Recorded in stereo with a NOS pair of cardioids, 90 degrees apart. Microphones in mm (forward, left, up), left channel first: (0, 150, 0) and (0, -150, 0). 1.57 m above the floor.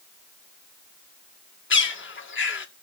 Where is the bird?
35° left, 1.9 m.